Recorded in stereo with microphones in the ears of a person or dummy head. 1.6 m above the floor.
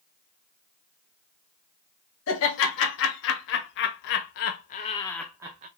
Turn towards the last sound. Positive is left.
turn(degrees=-20)  # may be behind; listen again after turning